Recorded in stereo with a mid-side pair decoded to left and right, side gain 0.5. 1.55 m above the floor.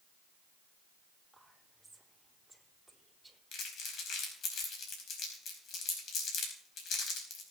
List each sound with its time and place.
1.3 s whispering: 5° right, 4 m
3.5 s crumpling: 65° left, 4.5 m